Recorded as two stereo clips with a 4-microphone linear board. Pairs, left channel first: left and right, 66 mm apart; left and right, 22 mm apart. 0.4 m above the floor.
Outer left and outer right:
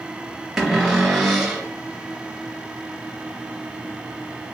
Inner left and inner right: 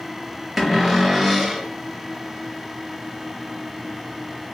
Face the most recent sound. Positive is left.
turn(degrees=-10)  # may be behind; listen again after turning